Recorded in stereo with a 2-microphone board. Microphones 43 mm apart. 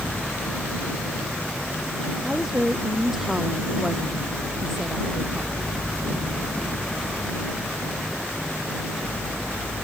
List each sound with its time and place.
2.2 s a woman speaking: 10° right (ahead or behind); by 5.5 s centre (ahead or behind)